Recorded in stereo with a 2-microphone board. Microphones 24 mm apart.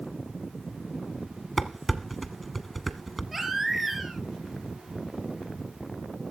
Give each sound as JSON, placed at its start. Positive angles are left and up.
{"t": 1.6, "sound": "dishes clattering", "side_deg": 0, "distance_m": 0.9}
{"t": 3.3, "sound": "a baby crying", "side_deg": -10, "distance_m": 2.5}